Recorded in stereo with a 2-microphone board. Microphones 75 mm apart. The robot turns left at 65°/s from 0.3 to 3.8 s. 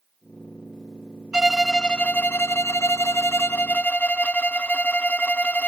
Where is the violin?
165° right; by 5.7 s 35° left.